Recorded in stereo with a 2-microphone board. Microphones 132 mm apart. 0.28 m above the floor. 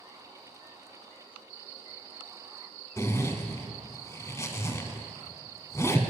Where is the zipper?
25° left (ahead or behind), 0.6 m.